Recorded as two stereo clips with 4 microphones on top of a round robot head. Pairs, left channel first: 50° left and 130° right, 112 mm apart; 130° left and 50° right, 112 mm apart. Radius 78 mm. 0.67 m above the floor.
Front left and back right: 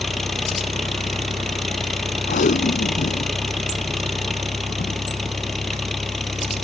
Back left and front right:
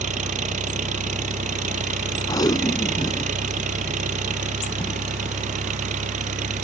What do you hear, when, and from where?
0.0 s an engine running: 35° right
2.3 s tape being pulled: 70° left